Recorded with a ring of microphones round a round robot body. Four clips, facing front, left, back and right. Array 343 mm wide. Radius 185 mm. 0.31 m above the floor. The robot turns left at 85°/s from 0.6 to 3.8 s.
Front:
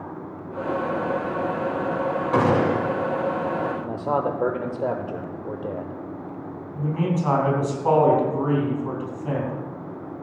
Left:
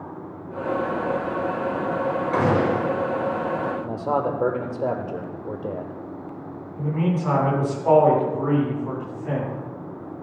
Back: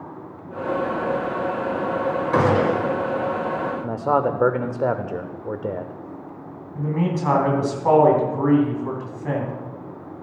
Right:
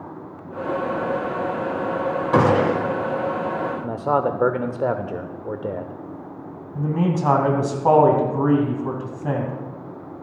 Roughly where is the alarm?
I don't hear an alarm.